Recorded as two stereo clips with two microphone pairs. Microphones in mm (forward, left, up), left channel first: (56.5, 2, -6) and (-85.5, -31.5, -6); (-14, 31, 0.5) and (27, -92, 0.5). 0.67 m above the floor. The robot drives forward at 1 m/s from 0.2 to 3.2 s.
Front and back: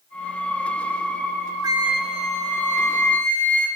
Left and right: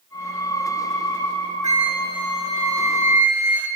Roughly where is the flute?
Right.